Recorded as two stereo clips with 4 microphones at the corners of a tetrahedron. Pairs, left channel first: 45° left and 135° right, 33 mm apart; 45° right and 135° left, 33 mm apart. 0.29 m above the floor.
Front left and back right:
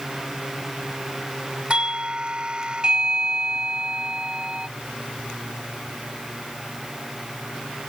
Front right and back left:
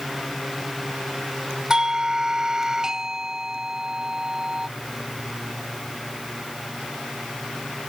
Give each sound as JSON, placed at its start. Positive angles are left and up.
{"t": 1.7, "sound": "a doorbell", "azimuth_deg": -170}